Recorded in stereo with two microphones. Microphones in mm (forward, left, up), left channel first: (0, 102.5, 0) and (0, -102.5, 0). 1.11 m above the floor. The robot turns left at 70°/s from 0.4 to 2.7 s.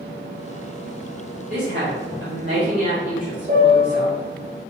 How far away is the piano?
About 1.1 m.